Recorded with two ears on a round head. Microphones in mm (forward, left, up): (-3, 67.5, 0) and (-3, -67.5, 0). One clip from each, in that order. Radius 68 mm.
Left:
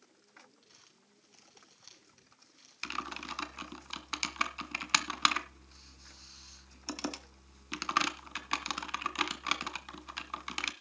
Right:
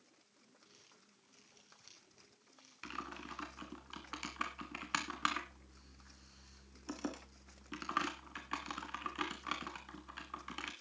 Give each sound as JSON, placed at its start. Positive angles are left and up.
{"t": 0.6, "sound": "crumpling", "side_deg": 20, "distance_m": 6.5}
{"t": 2.8, "sound": "typing on a keyboard", "side_deg": 75, "distance_m": 1.9}